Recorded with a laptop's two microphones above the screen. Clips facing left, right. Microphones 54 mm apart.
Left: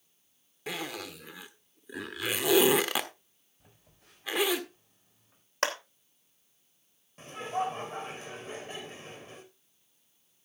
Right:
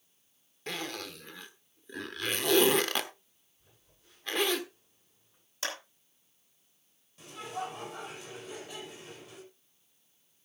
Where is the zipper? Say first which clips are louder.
Left 1 dB; 5° left (ahead or behind), 1.5 m.